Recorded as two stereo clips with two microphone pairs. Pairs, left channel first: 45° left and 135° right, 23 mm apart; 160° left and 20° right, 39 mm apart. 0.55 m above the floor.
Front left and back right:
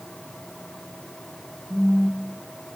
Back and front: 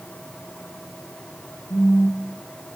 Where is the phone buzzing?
155° left, 0.5 m.